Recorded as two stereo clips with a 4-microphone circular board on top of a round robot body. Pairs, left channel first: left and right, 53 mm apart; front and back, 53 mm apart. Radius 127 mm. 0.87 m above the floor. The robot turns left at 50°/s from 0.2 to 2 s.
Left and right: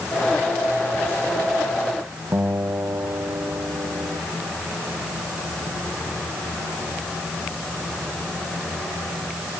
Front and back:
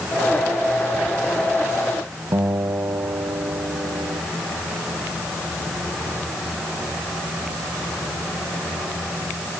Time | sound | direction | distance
2.3 | a guitar | 145° right | ?